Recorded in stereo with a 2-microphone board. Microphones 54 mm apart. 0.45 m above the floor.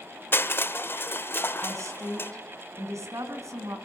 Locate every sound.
0.3 s crushing: 40° left (ahead or behind), 0.6 m
1.6 s a woman speaking: 65° right (ahead or behind), 4 m